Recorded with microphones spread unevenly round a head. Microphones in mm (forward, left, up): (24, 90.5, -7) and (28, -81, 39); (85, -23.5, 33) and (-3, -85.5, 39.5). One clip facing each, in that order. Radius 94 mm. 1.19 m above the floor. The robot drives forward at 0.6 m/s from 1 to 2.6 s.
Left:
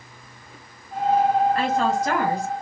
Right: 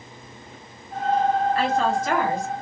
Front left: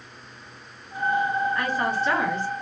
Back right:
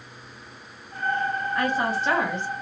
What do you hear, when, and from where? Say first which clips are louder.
1.6 s a woman speaking: even, back right 1 dB; 140° left, 1.4 m; by 2.5 s 150° left, 1.9 m